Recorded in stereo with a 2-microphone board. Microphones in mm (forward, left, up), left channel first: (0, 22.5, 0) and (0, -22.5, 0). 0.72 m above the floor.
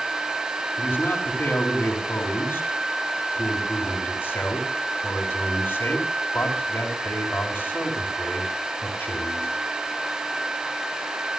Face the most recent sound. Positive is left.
turn(degrees=70)  # may be behind; listen again after turning